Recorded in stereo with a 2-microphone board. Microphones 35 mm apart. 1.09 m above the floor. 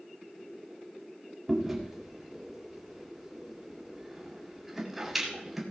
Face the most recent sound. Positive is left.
turn(degrees=-5)  # may be behind; listen again after turning